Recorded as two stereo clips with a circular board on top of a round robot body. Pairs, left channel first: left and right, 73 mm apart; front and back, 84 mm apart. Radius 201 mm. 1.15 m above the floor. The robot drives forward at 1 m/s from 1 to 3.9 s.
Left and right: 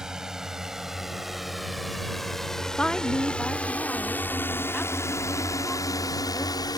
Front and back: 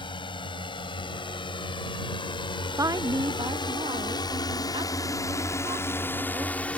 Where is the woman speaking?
160° left; by 6.7 s 175° left.